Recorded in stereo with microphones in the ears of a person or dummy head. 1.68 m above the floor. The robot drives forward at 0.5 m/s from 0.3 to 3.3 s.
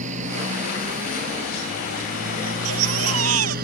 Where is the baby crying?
75° right (ahead or behind); by 3.5 s 80° right.